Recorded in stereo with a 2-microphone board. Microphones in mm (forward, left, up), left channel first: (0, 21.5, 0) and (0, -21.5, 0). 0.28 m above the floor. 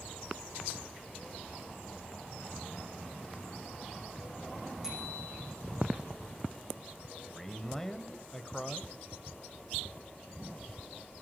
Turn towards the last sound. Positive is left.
turn(degrees=10)  # may be behind; listen again after turning